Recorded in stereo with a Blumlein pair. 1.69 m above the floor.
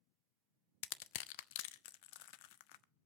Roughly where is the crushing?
Ahead left.